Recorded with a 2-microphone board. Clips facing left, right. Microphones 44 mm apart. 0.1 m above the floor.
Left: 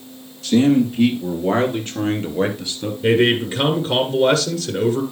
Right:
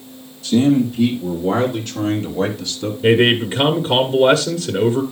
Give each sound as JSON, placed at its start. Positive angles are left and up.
{"t": 0.4, "sound": "a man speaking", "side_deg": 50, "distance_m": 3.0}
{"t": 3.0, "sound": "a man speaking", "side_deg": -10, "distance_m": 1.3}